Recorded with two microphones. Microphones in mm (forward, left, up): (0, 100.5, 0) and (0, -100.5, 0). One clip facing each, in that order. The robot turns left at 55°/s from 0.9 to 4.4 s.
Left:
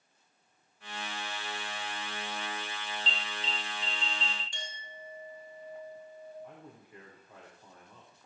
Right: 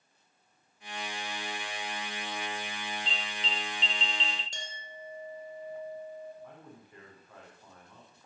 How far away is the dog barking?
No dog barking in this recording.